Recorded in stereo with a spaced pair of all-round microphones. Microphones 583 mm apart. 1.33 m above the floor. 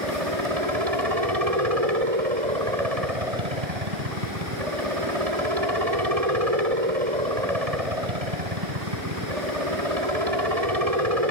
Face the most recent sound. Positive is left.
turn(degrees=-80)